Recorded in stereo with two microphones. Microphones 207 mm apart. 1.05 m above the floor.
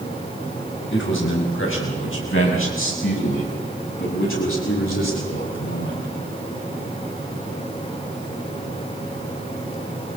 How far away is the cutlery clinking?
No cutlery clinking in this recording.